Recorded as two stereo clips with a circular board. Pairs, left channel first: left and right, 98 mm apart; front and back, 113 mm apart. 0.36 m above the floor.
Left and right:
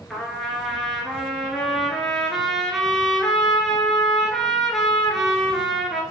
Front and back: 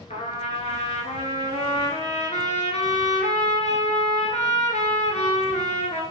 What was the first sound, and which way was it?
A trumpet, straight ahead.